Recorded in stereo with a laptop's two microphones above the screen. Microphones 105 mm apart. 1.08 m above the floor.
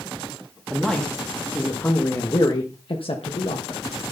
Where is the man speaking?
5° left (ahead or behind), 2 m; by 3.9 s 75° left (ahead or behind), 1.6 m.